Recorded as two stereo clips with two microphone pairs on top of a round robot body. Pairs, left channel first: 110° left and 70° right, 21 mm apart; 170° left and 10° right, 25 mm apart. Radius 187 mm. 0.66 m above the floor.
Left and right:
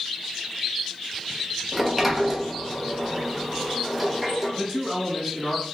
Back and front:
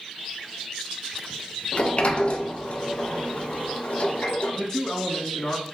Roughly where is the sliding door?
Behind right.